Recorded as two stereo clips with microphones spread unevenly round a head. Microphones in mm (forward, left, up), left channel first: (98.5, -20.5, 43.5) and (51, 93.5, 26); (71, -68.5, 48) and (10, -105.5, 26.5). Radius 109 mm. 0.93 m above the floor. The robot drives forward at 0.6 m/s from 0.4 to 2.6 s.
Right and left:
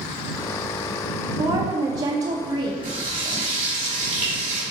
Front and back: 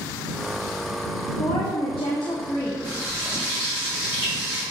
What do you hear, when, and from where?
1.4 s a woman speaking: 65° left, 1.2 m; by 2.7 s 105° left, 1.1 m
2.8 s frying: 140° left, 2.5 m